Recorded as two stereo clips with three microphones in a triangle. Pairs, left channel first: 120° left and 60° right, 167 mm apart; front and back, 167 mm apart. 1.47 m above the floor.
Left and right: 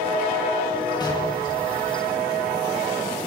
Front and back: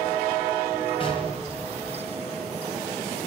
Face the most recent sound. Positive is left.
turn(degrees=55)